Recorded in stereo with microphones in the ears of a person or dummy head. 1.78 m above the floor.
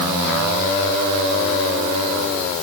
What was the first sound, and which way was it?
Only background noise.